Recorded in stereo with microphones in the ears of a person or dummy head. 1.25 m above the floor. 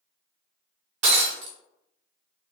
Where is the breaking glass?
45° right (ahead or behind), 0.7 m.